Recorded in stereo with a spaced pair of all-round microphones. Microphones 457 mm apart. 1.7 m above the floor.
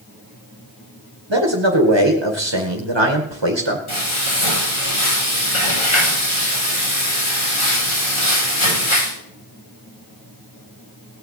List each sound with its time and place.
1.3 s a man speaking: 60° right (ahead or behind), 2 m
3.9 s frying: 85° left, 8.5 m